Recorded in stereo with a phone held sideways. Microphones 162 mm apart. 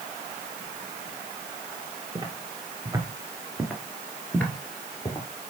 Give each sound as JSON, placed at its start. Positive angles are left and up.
{"t": 2.1, "sound": "footsteps", "side_deg": -30, "distance_m": 1.9}